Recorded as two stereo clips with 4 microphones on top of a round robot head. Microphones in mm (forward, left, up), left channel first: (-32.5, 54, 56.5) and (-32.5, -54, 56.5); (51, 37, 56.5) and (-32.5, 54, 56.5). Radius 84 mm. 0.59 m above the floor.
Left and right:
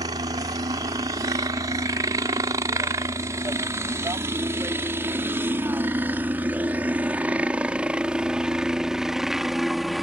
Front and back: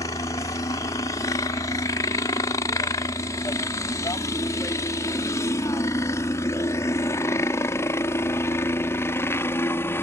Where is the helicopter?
50° right; by 10.0 s straight ahead.